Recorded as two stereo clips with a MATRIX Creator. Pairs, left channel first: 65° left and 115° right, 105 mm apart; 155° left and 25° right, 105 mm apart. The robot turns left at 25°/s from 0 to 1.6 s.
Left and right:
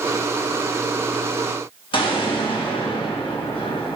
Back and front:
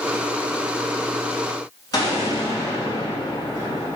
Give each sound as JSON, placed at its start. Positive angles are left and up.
{"t": 1.9, "sound": "an explosion", "azimuth_deg": 105, "distance_m": 4.0}